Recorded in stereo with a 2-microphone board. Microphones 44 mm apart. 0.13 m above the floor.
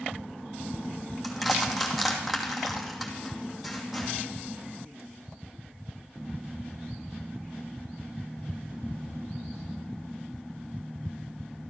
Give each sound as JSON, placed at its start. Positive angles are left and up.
{"t": 1.2, "sound": "crushing", "side_deg": -5, "distance_m": 2.5}